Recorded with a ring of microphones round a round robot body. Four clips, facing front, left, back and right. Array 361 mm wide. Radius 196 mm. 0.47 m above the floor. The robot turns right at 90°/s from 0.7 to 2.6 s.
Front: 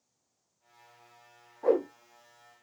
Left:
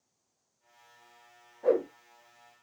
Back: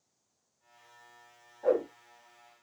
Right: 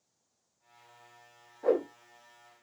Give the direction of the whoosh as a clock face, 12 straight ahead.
1 o'clock.